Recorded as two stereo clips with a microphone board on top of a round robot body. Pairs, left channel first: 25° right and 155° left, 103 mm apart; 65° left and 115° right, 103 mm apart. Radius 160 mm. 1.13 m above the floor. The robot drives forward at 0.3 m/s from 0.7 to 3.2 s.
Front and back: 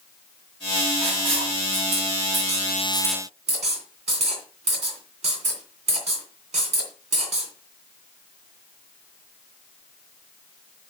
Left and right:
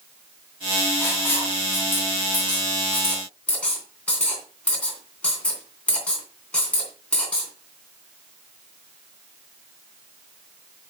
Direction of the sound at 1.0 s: 135° left.